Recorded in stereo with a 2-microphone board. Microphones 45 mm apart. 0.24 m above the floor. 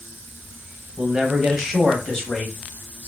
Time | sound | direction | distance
1.0 | a man speaking | 25° right (ahead or behind) | 1.1 m